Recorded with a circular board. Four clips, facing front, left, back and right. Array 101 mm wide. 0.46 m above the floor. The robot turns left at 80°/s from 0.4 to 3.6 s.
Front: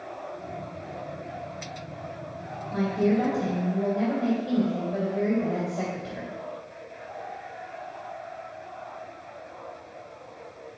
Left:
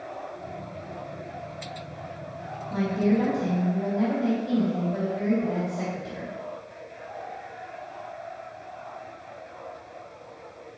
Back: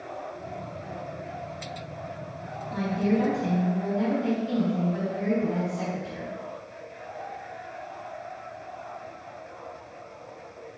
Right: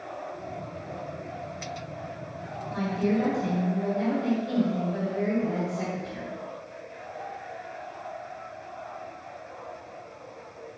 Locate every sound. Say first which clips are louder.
2.7 s a woman speaking: left 3 dB, front 2 dB; 65° left, 2.5 m; by 6.3 s 5° right, 2.5 m